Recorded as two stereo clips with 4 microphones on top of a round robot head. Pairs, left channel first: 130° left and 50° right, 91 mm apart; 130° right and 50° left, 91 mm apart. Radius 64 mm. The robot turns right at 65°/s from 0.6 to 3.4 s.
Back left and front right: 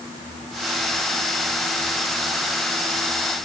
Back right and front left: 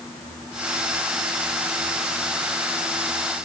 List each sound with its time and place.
Only background noise.